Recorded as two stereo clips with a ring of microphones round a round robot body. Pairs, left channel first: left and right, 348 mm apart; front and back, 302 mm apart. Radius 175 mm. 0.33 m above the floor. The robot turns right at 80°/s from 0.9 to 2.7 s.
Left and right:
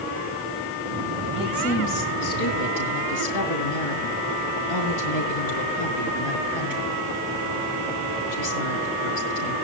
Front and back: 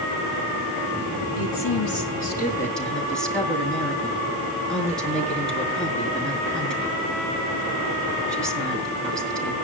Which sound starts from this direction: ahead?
A woman speaking, at 1.4 s.